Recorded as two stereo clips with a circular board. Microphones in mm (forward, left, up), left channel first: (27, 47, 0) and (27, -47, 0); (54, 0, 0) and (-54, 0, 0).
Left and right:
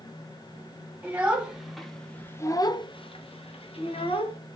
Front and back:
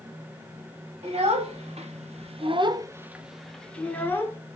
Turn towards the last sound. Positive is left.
turn(degrees=70)